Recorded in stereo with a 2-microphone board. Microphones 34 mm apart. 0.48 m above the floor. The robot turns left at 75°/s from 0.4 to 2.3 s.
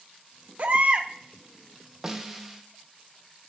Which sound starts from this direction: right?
A baby crying, at 0.6 s.